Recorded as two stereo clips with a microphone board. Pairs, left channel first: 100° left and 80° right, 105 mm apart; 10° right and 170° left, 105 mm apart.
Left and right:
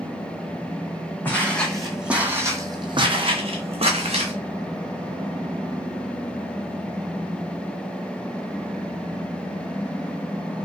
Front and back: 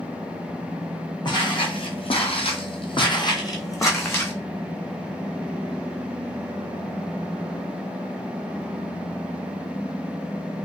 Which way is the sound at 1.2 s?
30° left.